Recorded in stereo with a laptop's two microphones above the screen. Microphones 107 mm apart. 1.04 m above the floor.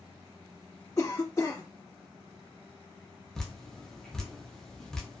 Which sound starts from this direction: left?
A cough, at 1.0 s.